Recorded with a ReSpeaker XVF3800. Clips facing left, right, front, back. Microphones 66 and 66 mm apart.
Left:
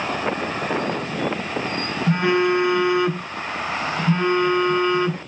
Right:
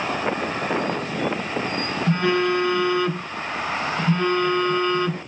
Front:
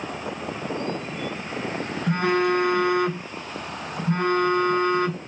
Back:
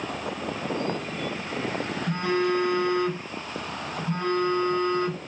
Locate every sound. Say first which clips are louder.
2.1 s a phone buzzing: left 2 dB, front 4 dB; 20° left, 0.5 m